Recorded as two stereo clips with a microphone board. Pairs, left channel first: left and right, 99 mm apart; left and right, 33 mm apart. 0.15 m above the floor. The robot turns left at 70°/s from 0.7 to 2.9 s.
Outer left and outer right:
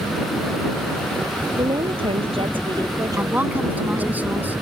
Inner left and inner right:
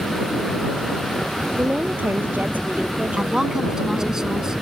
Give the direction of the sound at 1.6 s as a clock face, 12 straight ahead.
1 o'clock.